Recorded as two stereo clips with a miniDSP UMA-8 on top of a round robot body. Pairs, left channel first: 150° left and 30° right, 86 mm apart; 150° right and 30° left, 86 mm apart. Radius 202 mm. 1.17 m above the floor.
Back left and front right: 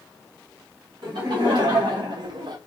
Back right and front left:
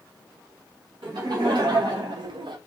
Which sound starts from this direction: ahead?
Laughter, at 1.0 s.